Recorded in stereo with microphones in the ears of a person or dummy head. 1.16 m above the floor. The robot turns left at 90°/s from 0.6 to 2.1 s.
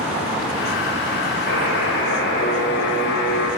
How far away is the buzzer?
About 4 m.